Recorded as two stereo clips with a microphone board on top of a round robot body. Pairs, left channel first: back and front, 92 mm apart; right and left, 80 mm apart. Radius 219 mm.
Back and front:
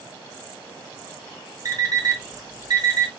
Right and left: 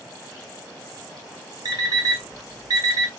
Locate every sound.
1.6 s an alarm clock: 45° left, 2 m